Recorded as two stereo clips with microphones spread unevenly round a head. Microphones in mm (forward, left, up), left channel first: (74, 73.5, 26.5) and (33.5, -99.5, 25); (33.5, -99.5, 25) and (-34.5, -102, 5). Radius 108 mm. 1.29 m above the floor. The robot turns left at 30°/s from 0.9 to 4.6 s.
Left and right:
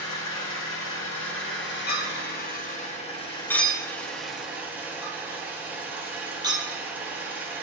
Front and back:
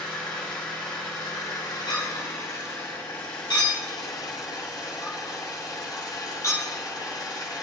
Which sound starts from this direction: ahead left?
A clink, at 1.9 s.